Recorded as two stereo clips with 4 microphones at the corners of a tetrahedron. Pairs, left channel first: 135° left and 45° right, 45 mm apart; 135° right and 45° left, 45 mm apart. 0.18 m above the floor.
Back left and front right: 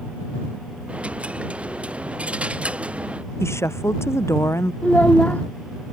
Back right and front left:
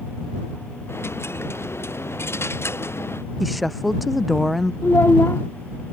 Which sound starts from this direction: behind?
A child speaking, at 4.8 s.